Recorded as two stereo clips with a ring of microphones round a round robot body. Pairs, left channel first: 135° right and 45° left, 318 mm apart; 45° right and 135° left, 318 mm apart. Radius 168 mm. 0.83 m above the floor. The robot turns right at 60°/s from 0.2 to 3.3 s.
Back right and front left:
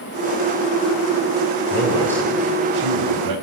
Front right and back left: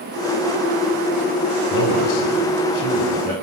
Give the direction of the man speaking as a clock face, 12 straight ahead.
2 o'clock.